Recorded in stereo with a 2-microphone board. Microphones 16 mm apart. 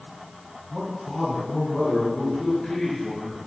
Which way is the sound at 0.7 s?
35° left (ahead or behind).